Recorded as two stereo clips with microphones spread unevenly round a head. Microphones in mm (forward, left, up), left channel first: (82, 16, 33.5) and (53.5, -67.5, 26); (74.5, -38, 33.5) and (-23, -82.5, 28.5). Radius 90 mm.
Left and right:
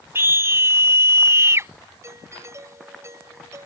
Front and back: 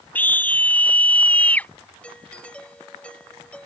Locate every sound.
0.1 s a scream: 50° right
2.0 s a doorbell: 55° right